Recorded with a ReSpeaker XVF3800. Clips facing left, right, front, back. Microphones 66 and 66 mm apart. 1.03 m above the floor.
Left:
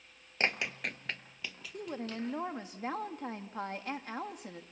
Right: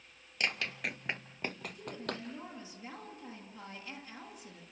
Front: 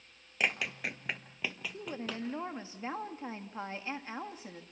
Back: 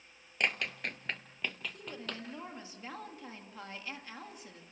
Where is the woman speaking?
60° left, 1.8 m.